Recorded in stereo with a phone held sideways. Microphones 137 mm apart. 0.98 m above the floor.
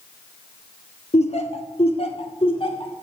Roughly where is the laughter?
Left.